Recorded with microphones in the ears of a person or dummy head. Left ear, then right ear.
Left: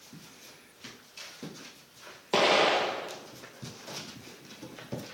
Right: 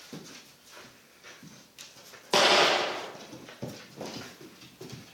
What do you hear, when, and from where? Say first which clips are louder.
2.3 s an explosion: right 2 dB; 15° right (ahead or behind), 2.5 m